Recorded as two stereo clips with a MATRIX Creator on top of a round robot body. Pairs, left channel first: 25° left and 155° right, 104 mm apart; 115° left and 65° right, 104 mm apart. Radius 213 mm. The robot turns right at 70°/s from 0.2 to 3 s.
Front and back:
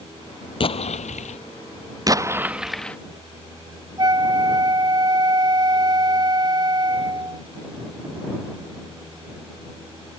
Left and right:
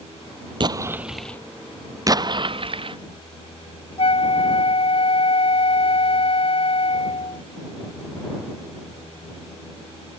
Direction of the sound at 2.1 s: 115° right.